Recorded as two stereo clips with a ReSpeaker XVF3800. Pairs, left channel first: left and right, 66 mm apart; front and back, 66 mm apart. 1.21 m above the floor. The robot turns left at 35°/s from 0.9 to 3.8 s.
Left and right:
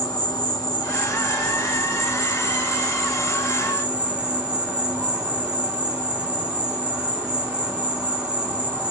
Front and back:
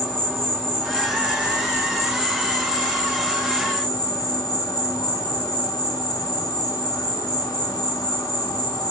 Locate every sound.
0.0 s an insect: 85° left, 2.5 m; by 8.9 s 15° right, 2.5 m